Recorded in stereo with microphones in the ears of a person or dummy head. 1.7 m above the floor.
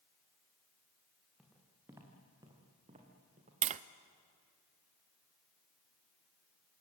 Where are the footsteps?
10° right (ahead or behind), 5 m; by 3.5 s 40° right (ahead or behind), 4.5 m.